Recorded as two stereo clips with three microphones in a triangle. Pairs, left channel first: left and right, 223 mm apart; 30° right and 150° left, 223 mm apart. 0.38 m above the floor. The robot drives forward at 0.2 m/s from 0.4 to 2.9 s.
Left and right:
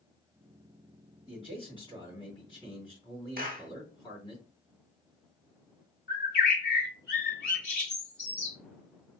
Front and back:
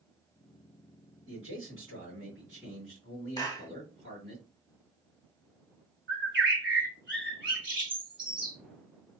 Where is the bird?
130° left, 2 m.